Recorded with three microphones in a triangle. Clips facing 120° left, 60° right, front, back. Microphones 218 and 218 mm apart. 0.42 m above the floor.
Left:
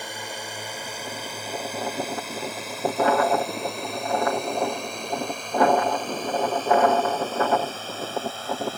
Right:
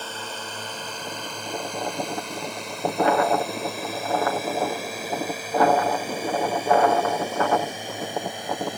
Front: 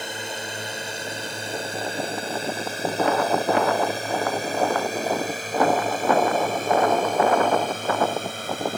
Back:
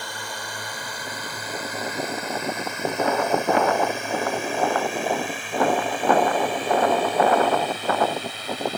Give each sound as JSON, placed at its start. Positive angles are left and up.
{"t": 0.0, "sound": "a drone", "azimuth_deg": 50}